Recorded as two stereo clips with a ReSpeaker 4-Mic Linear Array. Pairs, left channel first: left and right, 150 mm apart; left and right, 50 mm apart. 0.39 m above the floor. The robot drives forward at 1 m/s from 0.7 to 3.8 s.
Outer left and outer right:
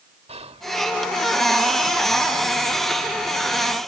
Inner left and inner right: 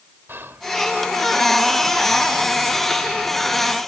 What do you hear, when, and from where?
0.3 s whispering: 45° right (ahead or behind), 1.2 m